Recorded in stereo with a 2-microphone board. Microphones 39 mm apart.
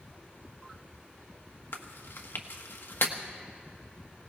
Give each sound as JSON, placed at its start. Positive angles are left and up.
{"t": 1.7, "sound": "chewing", "side_deg": 70, "distance_m": 1.2}